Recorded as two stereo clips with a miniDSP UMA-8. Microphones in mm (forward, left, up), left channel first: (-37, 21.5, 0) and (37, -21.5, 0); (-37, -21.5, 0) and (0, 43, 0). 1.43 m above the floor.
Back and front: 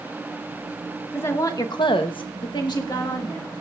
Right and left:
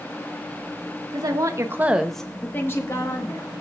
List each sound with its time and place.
1.1 s a woman speaking: 85° left, 1.5 m; by 3.6 s 160° right, 2.5 m